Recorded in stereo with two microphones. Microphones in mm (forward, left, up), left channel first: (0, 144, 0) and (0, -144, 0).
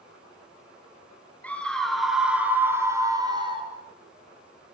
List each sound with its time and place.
1.4 s a scream: 5° left (ahead or behind), 5 m; by 3.7 s 20° right (ahead or behind), 5.5 m